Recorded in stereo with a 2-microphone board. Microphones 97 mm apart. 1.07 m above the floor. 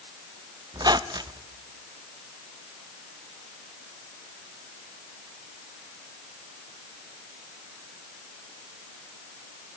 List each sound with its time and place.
0.7 s a squeak: 45° right (ahead or behind), 0.7 m